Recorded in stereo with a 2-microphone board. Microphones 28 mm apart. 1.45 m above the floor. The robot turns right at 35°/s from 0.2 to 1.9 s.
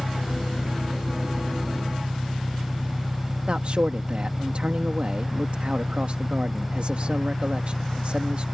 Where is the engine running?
55° left; by 8.6 s 115° left.